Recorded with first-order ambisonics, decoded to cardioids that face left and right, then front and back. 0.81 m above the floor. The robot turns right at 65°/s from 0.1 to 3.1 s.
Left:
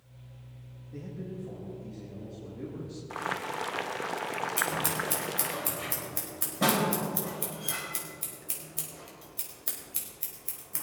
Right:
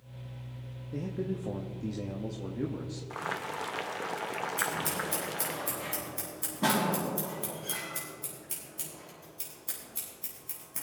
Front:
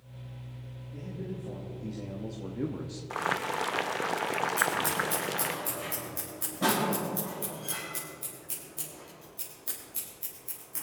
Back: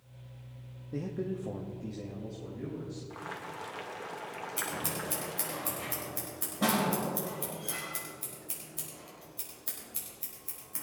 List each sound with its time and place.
0.9 s a man speaking: 145° right, 1.1 m; by 3.0 s 10° right, 1.1 m
3.1 s boiling: 10° left, 0.5 m
4.6 s scissors: 95° left, 4.5 m